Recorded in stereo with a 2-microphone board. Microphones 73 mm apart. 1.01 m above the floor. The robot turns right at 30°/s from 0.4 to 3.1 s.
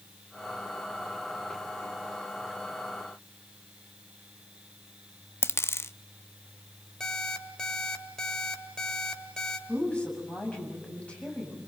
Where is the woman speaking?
15° left (ahead or behind), 6.5 m.